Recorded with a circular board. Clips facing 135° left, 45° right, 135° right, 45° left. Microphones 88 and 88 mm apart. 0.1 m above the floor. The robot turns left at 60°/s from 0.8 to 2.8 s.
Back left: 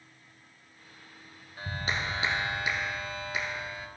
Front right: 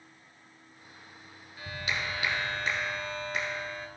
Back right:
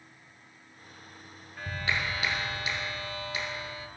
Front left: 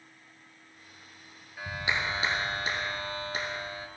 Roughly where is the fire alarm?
No fire alarm in this recording.